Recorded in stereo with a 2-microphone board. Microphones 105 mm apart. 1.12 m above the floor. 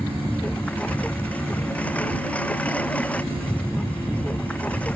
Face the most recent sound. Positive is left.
turn(degrees=15)  # may be behind; listen again after turning